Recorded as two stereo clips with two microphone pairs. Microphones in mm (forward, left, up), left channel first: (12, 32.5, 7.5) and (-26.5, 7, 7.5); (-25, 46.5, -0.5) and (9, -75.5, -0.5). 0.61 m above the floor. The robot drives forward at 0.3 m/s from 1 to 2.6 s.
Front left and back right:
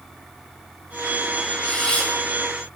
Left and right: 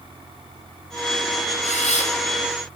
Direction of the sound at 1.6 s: 105° left.